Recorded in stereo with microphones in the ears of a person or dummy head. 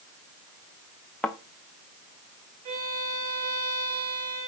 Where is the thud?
Centre (ahead or behind), 0.6 m.